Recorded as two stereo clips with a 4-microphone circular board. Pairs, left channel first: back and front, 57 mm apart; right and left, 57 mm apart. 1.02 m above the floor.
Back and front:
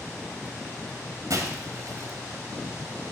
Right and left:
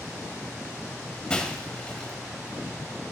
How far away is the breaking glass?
About 2.0 m.